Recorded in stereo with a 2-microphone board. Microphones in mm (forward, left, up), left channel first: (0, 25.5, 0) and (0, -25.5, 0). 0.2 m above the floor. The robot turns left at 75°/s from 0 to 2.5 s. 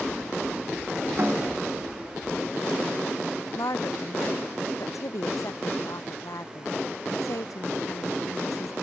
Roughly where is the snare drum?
Behind right.